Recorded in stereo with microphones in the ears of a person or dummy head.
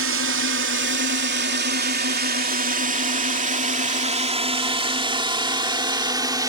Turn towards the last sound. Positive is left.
turn(degrees=-15)  # may be behind; listen again after turning